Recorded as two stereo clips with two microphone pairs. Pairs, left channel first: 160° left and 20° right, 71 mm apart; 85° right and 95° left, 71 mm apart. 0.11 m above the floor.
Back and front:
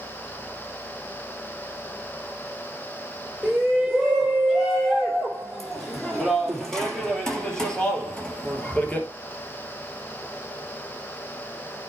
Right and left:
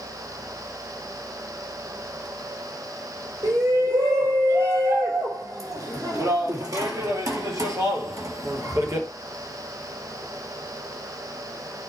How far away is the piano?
I don't hear a piano.